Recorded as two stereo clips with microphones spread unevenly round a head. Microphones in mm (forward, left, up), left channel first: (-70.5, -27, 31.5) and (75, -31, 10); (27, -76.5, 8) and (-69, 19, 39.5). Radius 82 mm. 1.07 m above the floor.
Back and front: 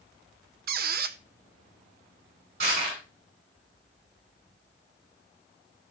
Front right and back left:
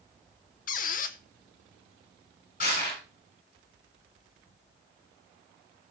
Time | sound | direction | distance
0.7 | a squeak | 15° right | 0.6 m
2.6 | crushing | 10° right | 7 m